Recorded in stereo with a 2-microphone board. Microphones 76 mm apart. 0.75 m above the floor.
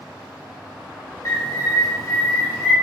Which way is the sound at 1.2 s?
35° left (ahead or behind).